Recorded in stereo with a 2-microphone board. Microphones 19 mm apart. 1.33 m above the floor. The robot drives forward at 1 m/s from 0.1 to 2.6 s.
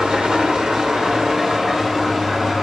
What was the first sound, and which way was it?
An engine running, 55° right (ahead or behind).